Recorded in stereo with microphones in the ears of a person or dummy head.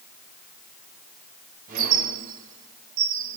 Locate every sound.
1.7 s a squeak: 45° right (ahead or behind), 4.5 m